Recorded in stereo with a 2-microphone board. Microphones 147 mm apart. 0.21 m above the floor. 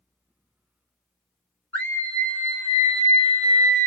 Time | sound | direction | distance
1.7 | a scream | 15° left (ahead or behind) | 1.6 m